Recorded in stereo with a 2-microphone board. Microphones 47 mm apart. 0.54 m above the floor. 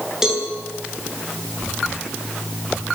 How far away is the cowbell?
About 8 m.